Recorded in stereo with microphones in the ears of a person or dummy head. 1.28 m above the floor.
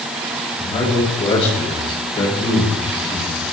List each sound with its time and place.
0.6 s a man speaking: 25° left (ahead or behind), 6 m